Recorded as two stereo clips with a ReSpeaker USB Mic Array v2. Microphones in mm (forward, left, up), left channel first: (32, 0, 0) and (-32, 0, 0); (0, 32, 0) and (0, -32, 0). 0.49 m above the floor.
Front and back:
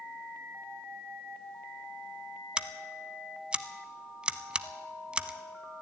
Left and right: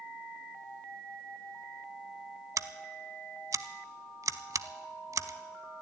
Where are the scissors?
105° right, 0.5 m.